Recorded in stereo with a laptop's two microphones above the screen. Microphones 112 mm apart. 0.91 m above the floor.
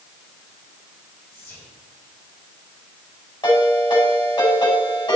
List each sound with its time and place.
1.3 s whispering: 20° left (ahead or behind), 4.5 m
3.4 s a ringtone: 45° left (ahead or behind), 5.5 m